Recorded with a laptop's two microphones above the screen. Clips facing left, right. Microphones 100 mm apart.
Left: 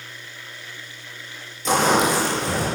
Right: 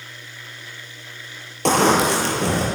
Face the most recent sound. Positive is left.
turn(degrees=-75)  # may be behind; listen again after turning